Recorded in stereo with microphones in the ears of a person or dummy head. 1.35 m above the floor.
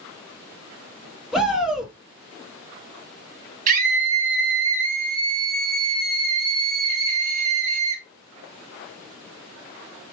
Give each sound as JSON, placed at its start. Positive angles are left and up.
{"t": 1.3, "sound": "a shout", "side_deg": -5, "distance_m": 1.2}
{"t": 3.7, "sound": "a scream", "side_deg": -45, "distance_m": 1.3}